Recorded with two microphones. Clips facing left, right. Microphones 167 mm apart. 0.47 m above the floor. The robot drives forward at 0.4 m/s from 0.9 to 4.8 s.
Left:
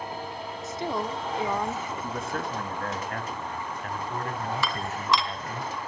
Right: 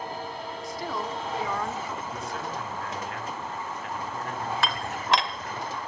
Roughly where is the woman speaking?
Left.